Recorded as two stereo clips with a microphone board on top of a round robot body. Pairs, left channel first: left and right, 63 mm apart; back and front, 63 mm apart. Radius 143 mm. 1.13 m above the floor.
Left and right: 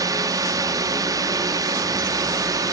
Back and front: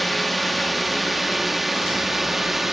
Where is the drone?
90° right; by 2.7 s 85° right.